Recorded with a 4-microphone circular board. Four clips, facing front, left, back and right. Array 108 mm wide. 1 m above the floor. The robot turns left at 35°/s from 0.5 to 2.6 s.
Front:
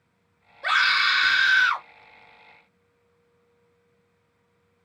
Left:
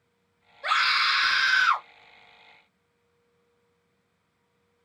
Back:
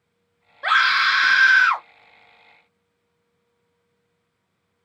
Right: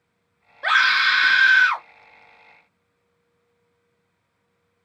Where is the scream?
125° right, 1.9 m; by 1.9 s 170° right, 1.9 m.